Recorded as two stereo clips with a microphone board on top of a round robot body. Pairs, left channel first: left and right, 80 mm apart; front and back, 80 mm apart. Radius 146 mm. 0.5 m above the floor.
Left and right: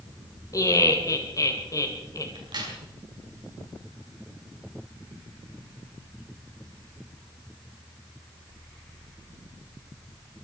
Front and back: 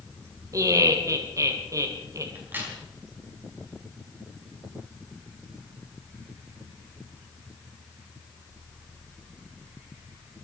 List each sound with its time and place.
0.5 s laughter: 135° left, 3 m
2.4 s a crack: 115° right, 5.5 m